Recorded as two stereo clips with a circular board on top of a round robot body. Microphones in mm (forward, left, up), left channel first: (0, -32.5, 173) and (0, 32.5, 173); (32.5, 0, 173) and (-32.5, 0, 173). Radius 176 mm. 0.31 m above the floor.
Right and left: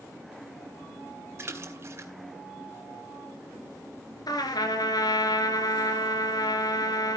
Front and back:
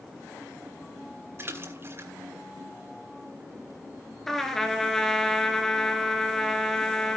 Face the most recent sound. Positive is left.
turn(degrees=-85)